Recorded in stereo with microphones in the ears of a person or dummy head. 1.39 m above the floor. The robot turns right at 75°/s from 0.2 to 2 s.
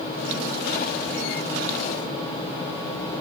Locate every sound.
Only background noise.